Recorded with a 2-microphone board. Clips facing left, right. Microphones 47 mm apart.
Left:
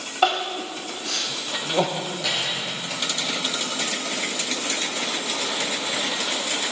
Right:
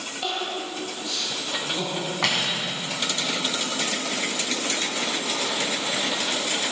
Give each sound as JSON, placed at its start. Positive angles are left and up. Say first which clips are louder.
{"t": 0.2, "sound": "crying", "louder": "left 8 dB", "side_deg": 75, "distance_m": 1.8}
{"t": 2.2, "sound": "cutlery clinking", "louder": "right 3 dB", "side_deg": -85, "distance_m": 2.5}